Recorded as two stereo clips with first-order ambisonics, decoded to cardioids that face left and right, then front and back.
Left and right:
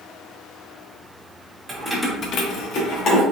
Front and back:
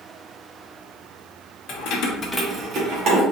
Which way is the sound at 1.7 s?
10° right.